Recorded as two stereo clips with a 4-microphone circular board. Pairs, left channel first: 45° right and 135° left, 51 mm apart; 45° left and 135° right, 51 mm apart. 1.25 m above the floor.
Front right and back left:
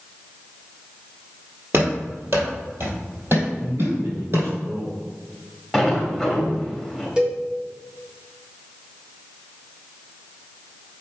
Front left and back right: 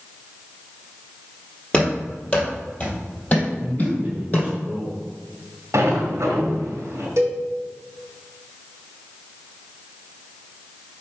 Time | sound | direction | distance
1.7 | running footsteps | 115° left | 2 m
3.6 | a man speaking | 160° left | 2.5 m
5.7 | a sliding door | 140° right | 1.8 m
7.2 | a cowbell | 155° right | 1.6 m